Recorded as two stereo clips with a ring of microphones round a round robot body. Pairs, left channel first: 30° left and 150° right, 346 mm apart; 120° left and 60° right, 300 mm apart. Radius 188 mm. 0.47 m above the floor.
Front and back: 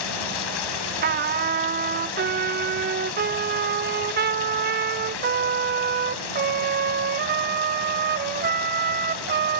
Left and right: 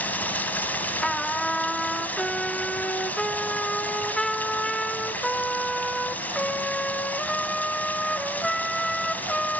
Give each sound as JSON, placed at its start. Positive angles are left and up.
{"t": 0.0, "sound": "running water", "azimuth_deg": 35, "distance_m": 2.0}
{"t": 1.0, "sound": "a trumpet", "azimuth_deg": -155, "distance_m": 0.8}